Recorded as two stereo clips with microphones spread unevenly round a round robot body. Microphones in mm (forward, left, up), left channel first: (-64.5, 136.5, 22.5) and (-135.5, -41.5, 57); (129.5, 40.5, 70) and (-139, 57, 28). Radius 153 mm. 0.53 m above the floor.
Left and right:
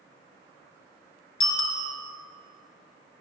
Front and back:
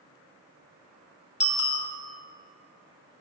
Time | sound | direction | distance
1.4 | a bicycle bell | 65° left | 2.5 m